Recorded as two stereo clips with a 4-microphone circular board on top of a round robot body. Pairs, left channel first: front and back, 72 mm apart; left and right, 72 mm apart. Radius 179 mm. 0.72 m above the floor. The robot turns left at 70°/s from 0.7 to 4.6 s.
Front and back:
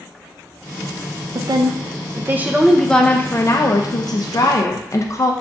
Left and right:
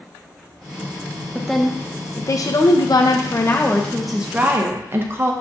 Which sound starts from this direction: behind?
A woman speaking, at 1.4 s.